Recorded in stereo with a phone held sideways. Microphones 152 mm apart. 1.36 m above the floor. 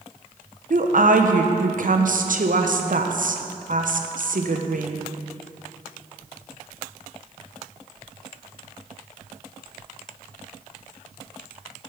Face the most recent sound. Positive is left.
turn(degrees=-60)  # may be behind; listen again after turning